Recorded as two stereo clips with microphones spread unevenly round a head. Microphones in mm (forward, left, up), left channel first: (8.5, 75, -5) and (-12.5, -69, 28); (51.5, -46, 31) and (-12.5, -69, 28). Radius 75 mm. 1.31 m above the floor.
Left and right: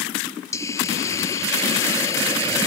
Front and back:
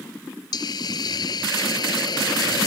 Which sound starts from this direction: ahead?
A hiss, at 0.5 s.